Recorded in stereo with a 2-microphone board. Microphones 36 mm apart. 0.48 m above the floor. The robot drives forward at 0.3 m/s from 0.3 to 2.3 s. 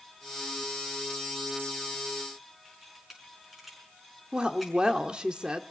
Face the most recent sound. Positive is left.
turn(degrees=-25)  # may be behind; listen again after turning